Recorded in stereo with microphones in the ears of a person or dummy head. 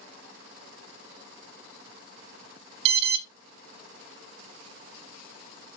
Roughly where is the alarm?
Right.